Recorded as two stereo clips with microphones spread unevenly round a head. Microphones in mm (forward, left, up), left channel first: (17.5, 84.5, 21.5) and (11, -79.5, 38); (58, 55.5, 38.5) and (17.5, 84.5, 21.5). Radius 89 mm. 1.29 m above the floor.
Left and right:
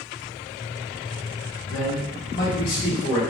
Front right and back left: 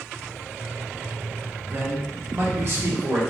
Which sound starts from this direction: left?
A man speaking, at 1.7 s.